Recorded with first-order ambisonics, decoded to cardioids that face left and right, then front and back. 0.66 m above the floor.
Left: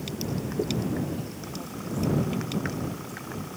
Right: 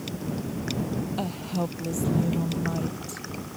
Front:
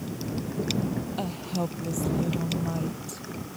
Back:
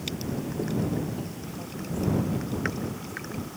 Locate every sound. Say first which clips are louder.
1.2 s a woman speaking: right 7 dB, front 6 dB; 45° right; by 3.3 s 40° right